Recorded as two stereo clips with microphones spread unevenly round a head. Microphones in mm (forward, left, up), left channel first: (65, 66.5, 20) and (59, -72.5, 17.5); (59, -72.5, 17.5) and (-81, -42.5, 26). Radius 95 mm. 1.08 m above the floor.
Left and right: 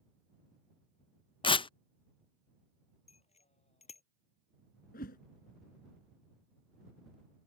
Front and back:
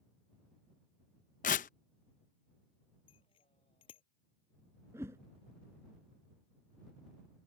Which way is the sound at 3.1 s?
50° left.